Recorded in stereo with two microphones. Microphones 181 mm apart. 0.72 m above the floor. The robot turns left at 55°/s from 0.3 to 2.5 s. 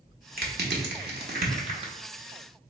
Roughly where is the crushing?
Right.